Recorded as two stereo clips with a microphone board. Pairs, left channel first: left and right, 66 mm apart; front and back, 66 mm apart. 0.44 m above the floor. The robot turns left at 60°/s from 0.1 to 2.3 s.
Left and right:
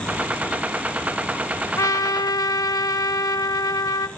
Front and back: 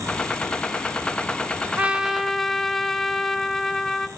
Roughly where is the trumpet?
Behind left.